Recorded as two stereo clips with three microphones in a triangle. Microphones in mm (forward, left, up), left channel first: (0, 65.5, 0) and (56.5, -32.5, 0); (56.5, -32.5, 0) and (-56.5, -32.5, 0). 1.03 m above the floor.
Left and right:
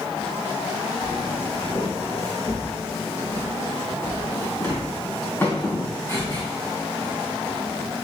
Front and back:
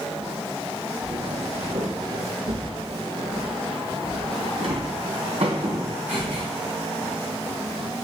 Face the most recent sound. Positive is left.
turn(degrees=-170)